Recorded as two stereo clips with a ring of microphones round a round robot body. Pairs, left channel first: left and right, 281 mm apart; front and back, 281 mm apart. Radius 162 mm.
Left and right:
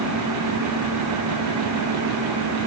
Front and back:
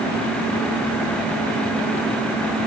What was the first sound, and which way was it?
Only background noise.